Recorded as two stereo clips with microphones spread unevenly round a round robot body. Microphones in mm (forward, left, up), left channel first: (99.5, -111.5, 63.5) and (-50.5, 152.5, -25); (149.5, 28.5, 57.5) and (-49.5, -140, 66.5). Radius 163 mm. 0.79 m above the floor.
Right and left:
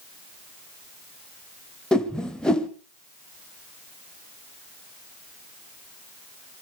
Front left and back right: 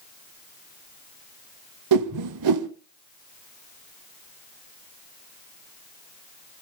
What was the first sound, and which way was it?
A whoosh, 145° right.